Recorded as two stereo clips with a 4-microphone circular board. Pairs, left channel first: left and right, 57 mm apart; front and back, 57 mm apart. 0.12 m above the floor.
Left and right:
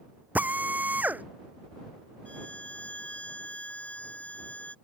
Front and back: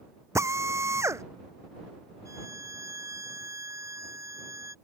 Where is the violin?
155° left.